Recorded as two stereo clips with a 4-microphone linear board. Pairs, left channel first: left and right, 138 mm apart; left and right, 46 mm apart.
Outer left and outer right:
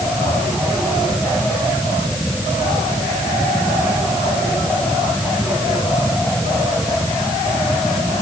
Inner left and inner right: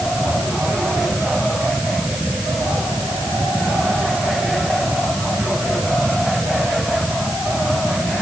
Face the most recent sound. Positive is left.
No sound to turn to.